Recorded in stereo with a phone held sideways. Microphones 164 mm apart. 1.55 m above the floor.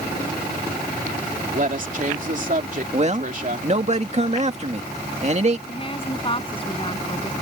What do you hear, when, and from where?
1.5 s a woman speaking: 55° right (ahead or behind)
2.9 s a man speaking: 45° right (ahead or behind)
5.7 s a woman speaking: 35° left (ahead or behind)